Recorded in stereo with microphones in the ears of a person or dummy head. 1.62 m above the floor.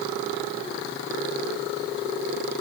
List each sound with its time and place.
Only background noise.